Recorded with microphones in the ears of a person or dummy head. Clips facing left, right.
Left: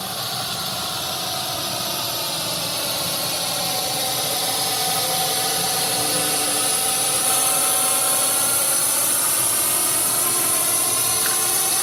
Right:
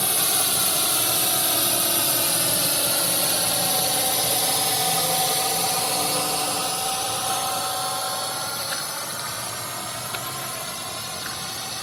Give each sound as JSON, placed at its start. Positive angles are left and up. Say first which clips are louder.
{"t": 0.0, "sound": "a drone", "louder": "right 1 dB", "side_deg": -35}